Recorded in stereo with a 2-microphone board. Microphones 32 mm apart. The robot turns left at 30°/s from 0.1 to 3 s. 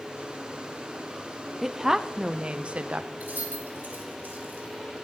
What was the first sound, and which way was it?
A woman speaking, 5° right.